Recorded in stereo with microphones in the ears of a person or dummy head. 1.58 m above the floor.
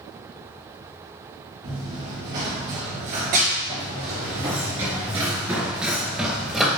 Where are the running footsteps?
40° right (ahead or behind), 2.5 m; by 6.8 s centre (ahead or behind), 2 m.